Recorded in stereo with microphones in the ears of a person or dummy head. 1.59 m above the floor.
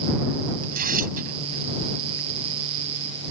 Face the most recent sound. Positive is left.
turn(degrees=-45)  # may be behind; listen again after turning